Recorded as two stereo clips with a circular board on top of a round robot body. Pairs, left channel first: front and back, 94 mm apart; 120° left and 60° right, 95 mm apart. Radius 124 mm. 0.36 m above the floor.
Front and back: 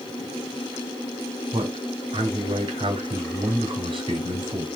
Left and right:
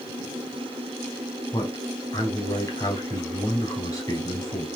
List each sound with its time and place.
1.5 s a man speaking: 165° left, 3 m